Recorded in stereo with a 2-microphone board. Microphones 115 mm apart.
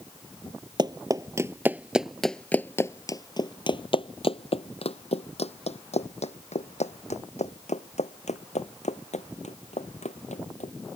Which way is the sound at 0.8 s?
40° right (ahead or behind).